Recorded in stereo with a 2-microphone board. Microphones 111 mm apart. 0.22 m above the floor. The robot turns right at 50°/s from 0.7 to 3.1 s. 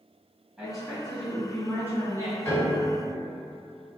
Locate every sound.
0.6 s a woman speaking: 5° right (ahead or behind), 1.1 m; by 2.4 s 25° left (ahead or behind), 1.1 m
2.5 s a piano: 25° left (ahead or behind), 1.8 m; by 2.8 s 35° left (ahead or behind), 1.8 m